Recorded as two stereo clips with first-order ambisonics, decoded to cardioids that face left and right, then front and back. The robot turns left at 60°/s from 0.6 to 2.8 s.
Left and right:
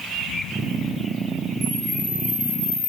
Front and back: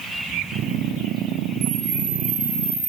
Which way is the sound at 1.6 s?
165° right.